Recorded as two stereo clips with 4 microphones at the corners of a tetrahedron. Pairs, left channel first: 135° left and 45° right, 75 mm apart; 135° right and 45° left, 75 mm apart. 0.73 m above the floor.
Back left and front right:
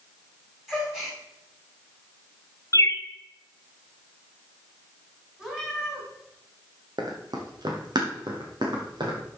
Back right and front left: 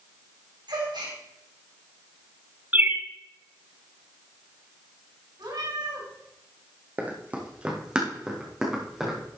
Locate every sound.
0.7 s a gasp: 40° left, 4 m
2.7 s a bird: 105° left, 1.0 m
5.4 s a cat meowing: 35° left, 3.5 m
7.0 s running footsteps: 20° right, 1.8 m; by 9.2 s 40° right, 3.5 m